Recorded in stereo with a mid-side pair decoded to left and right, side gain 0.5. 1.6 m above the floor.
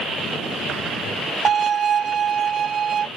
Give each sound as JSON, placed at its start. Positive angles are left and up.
{"t": 1.4, "sound": "a violin", "azimuth_deg": -40}